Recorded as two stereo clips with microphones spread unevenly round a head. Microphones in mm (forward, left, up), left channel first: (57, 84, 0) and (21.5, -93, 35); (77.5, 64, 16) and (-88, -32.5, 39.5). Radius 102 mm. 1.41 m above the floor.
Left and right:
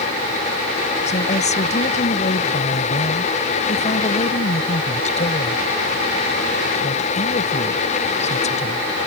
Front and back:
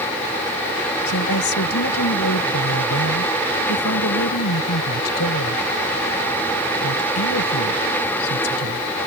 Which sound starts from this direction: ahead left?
A woman speaking, at 1.1 s.